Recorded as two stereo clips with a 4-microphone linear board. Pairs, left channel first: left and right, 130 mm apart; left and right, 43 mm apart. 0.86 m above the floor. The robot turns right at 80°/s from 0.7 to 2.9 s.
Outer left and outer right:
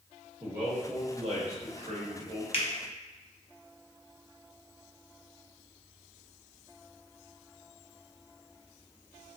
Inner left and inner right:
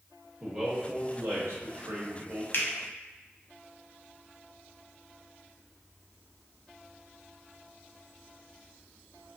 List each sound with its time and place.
0.4 s a man speaking: 165° right, 1.1 m; by 2.4 s 25° right, 1.1 m
2.5 s a finger snap: 50° left (ahead or behind), 0.6 m; by 2.7 s 40° left (ahead or behind), 0.6 m